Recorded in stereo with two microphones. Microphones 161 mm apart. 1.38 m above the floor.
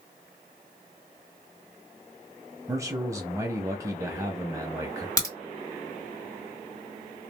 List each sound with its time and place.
2.7 s a man speaking: 20° right (ahead or behind), 0.5 m
5.2 s a crack: 20° left (ahead or behind), 1.5 m